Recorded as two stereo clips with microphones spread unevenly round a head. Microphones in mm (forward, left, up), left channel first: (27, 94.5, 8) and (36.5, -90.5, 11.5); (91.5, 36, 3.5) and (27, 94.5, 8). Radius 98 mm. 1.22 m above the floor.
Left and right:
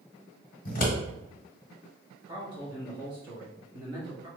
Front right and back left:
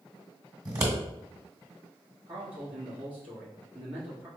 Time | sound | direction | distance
0.7 | scissors | 120° left | 1.3 m
2.3 | a man speaking | 155° right | 1.3 m